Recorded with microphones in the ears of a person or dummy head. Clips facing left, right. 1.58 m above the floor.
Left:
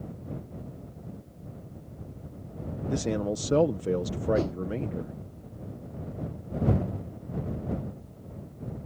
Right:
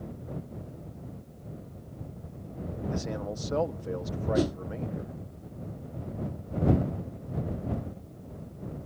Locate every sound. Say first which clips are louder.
2.9 s a man speaking: left 8 dB; 50° left (ahead or behind)
4.3 s a whoosh: right 3 dB; 20° right (ahead or behind)